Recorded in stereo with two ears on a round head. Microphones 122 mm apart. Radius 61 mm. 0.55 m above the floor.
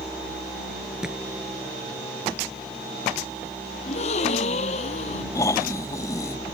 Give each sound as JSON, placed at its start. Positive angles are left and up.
{"t": 1.0, "sound": "a thud", "side_deg": -5}
{"t": 3.9, "sound": "a gasp", "side_deg": 55}
{"t": 5.3, "sound": "snoring", "side_deg": 25}